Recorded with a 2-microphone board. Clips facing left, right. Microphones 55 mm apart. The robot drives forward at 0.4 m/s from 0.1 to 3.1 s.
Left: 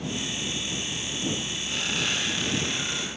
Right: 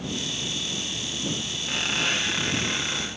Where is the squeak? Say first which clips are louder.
Right 3 dB; 55° right (ahead or behind), 7 m; by 3.1 s 50° right (ahead or behind), 7.5 m.